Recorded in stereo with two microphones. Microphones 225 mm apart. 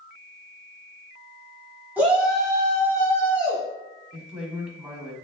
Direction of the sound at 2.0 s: 10° right (ahead or behind).